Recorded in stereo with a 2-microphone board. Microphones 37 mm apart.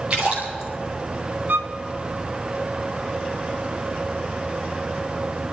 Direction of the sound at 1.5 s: 60° right (ahead or behind).